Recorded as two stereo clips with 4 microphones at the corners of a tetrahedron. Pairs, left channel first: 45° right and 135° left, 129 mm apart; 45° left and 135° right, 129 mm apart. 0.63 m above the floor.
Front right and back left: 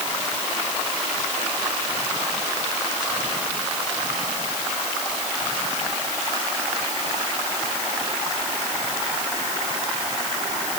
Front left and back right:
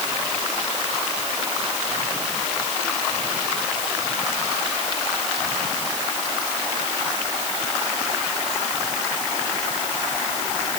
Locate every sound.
Only background noise.